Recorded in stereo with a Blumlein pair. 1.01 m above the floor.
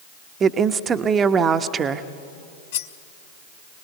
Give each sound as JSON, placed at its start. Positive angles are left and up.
{"t": 0.4, "sound": "a woman speaking", "azimuth_deg": -20, "distance_m": 1.0}
{"t": 2.7, "sound": "cutlery clinking", "azimuth_deg": 55, "distance_m": 0.9}